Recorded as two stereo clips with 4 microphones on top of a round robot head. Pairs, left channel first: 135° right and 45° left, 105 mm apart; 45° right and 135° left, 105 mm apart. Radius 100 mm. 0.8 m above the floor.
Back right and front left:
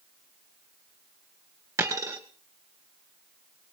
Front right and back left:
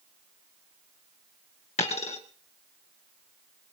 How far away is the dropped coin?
About 2 m.